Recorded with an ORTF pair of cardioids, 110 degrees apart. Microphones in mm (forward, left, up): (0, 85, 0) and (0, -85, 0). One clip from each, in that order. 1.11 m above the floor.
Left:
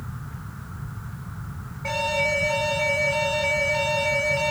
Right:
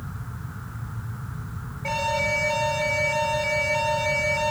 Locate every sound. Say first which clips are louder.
1.8 s an alarm: left 1 dB; 5° left, 3.5 m